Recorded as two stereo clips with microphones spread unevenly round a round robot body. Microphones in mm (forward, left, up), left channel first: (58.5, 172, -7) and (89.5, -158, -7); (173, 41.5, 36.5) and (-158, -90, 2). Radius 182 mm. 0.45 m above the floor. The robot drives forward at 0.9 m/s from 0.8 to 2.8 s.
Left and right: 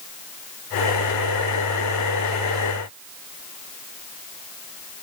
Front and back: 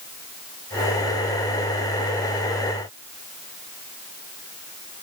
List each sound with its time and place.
Only background noise.